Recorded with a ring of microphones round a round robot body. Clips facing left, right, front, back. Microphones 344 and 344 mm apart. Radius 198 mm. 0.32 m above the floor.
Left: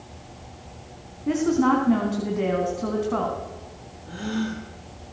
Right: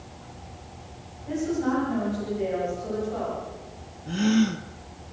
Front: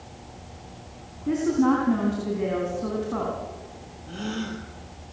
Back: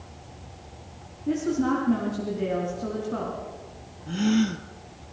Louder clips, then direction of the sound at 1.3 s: Left 5 dB, front 3 dB; 80° left.